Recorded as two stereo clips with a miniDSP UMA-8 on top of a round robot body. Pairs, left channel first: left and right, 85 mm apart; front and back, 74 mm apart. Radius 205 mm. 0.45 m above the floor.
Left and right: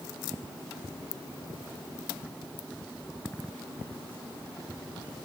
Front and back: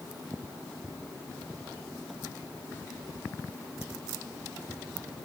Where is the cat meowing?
I don't hear a cat meowing.